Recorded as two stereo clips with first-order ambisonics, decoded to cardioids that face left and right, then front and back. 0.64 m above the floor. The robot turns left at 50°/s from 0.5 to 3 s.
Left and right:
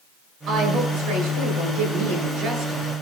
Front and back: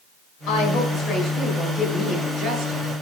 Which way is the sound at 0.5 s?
25° right.